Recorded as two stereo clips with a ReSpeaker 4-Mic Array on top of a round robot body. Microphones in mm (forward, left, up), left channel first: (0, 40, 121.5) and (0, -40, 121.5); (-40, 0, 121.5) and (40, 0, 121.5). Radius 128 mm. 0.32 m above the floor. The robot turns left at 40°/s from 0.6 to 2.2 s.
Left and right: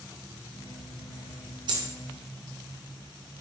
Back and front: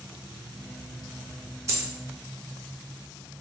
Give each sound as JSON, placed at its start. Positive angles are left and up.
{"t": 1.7, "sound": "a dropped coin", "azimuth_deg": -55, "distance_m": 0.6}